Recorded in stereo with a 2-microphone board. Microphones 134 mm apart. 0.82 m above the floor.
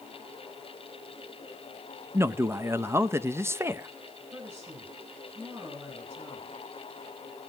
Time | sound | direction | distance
2.1 | a man speaking | 20° right (ahead or behind) | 0.5 m
4.3 | a woman speaking | 25° right (ahead or behind) | 5 m